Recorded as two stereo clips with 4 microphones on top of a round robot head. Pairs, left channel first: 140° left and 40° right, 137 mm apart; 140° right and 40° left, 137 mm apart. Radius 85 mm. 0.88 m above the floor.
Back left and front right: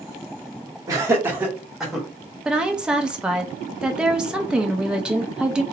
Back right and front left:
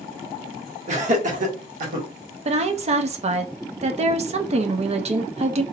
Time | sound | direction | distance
0.9 | laughter | 20° left | 1.4 m
2.5 | a woman speaking | 40° left | 0.6 m